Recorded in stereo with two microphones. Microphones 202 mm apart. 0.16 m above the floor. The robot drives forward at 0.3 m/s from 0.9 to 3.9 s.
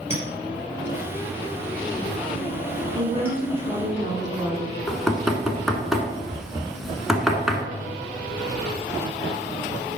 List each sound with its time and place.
0.1 s a clink: 30° left (ahead or behind), 2.5 m; by 3.4 s 25° left (ahead or behind), 3 m
3.0 s a woman speaking: 30° right (ahead or behind), 1.1 m
4.9 s knocking: centre (ahead or behind), 1.0 m